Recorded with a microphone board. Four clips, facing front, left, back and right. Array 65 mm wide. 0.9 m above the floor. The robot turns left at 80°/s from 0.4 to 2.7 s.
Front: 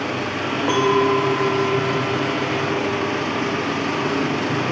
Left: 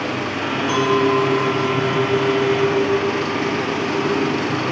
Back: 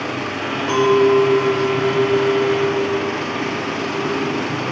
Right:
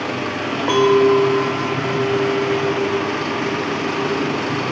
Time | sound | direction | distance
0.7 | a clink | 75° right | 0.6 m